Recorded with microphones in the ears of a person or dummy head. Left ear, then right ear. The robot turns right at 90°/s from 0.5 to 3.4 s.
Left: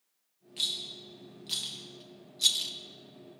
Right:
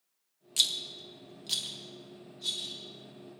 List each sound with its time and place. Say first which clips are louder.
0.6 s a rattle: right 4 dB; 80° right, 1.3 m; by 2.7 s 80° left, 1.3 m